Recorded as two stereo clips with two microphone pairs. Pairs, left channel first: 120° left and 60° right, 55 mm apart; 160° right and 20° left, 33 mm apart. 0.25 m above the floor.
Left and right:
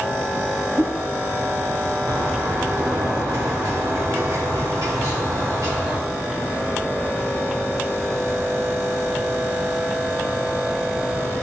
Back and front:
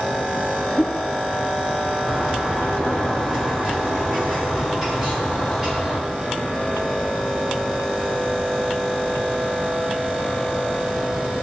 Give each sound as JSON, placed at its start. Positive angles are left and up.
{"t": 0.8, "sound": "a whoosh", "azimuth_deg": -80, "distance_m": 1.8}
{"t": 2.1, "sound": "a bird", "azimuth_deg": -50, "distance_m": 5.0}